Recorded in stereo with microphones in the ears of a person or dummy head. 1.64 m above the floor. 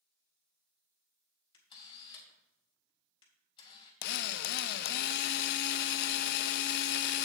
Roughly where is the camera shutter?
Left.